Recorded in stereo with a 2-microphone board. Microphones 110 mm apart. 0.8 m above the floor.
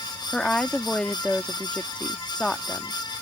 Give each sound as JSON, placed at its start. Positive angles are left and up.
{"t": 0.3, "sound": "a woman speaking", "side_deg": 10}